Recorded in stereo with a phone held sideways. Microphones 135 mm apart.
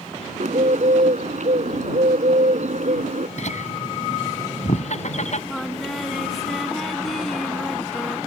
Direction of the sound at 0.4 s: 65° right (ahead or behind).